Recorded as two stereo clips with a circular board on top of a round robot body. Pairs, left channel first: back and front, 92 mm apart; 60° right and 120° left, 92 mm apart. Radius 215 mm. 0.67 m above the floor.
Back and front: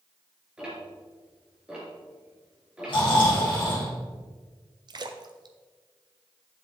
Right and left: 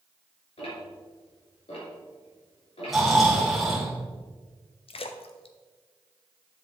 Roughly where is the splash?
Ahead right.